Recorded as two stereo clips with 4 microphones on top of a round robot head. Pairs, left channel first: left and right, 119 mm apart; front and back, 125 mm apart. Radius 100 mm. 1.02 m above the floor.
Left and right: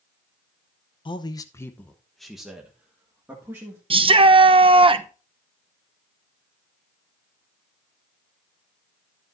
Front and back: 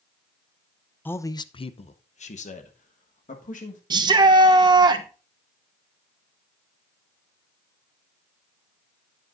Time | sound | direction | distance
1.1 | a man speaking | 70° left | 0.7 m
3.9 | a shout | 130° right | 0.9 m